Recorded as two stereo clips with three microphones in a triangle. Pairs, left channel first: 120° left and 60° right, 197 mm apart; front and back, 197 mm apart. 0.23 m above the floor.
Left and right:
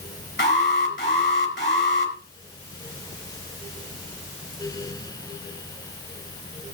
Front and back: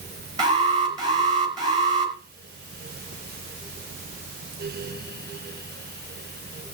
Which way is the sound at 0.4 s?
110° left.